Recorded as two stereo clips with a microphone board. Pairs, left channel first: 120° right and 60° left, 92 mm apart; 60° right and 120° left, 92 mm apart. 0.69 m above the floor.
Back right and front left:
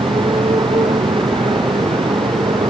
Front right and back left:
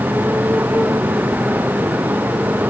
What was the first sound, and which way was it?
A motorcycle, 50° left.